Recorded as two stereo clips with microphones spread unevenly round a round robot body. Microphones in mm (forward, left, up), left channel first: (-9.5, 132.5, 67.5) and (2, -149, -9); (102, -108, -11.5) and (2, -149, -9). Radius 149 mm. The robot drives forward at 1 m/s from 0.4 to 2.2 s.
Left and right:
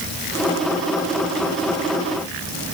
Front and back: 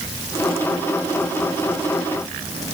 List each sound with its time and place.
Only background noise.